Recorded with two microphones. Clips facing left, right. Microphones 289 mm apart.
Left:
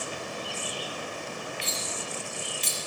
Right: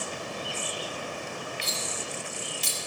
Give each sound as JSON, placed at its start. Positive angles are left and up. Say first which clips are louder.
{"t": 1.6, "sound": "cutlery clinking", "louder": "even", "side_deg": -50, "distance_m": 1.1}